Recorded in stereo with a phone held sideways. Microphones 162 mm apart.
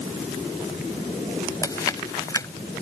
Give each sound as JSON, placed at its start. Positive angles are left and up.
{"t": 1.6, "sound": "chewing", "side_deg": 20}